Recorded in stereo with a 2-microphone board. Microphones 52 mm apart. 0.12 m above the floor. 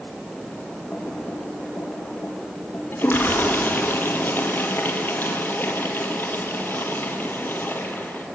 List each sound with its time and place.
0.9 s typing on a keyboard: 40° left (ahead or behind), 7.5 m
2.9 s a toilet flushing: 45° left (ahead or behind), 3 m